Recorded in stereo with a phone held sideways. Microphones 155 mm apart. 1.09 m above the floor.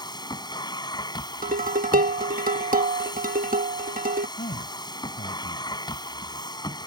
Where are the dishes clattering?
70° right (ahead or behind).